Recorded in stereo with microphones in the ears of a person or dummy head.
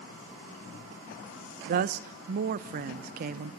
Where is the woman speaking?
45° right (ahead or behind), 1.2 m.